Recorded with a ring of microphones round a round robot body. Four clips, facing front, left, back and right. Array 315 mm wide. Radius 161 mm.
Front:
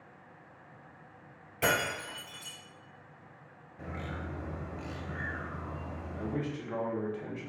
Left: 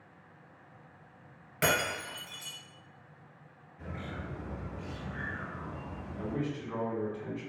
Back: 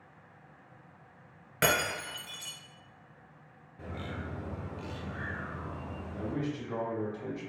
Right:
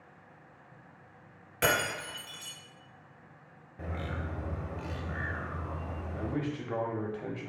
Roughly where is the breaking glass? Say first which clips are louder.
Right 1 dB, back 1 dB; behind.